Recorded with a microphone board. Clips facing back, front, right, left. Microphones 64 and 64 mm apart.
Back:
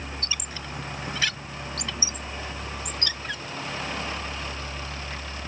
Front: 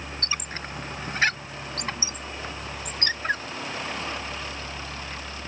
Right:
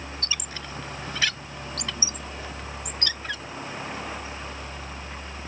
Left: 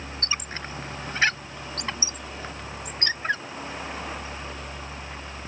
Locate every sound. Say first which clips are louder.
0.2 s a squeak: front 3 dB, left 6 dB; 40° left